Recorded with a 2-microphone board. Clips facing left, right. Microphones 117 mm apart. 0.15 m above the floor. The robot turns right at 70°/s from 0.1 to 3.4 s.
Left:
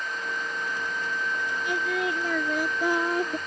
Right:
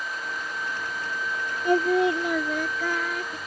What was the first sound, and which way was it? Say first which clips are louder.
Singing: right 9 dB; 60° right.